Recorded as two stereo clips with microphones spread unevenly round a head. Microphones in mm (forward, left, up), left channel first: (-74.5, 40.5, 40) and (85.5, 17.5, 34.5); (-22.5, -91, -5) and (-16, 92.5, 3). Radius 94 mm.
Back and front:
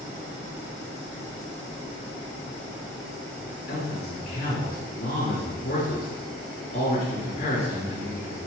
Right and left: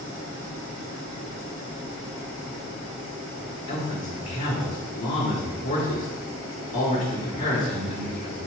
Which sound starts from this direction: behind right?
A man speaking, at 3.7 s.